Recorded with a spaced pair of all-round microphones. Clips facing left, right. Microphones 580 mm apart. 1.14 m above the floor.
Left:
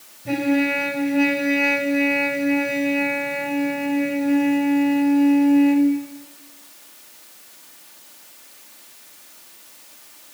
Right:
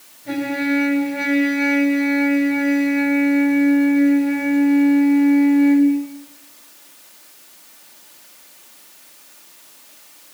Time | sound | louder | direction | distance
0.2 | a trumpet | left 1 dB | 50° left (ahead or behind) | 7 m